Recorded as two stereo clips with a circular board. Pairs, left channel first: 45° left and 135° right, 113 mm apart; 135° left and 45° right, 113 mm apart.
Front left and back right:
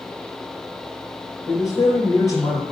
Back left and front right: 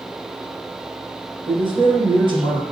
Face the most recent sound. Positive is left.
turn(degrees=-10)